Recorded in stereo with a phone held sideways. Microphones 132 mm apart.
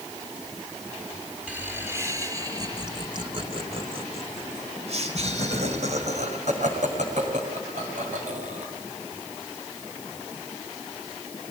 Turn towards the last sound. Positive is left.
turn(degrees=-70)  # may be behind; listen again after turning